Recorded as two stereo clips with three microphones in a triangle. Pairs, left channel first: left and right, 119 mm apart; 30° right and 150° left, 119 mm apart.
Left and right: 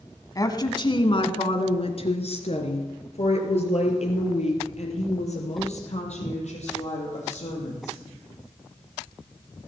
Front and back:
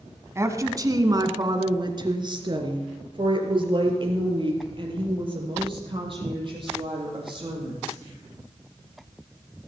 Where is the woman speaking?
110° left, 1.1 m; by 8.0 s 105° left, 6 m.